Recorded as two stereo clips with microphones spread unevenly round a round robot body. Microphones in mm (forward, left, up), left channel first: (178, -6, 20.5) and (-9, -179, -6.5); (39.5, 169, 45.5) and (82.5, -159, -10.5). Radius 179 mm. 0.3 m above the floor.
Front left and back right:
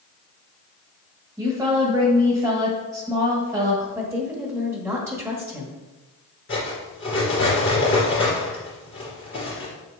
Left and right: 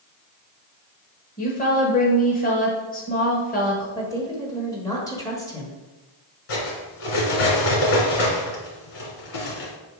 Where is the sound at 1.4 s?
160° left, 1.1 m.